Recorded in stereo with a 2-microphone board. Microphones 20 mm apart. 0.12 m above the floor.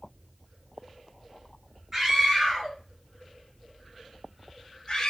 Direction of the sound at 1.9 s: 20° right (ahead or behind).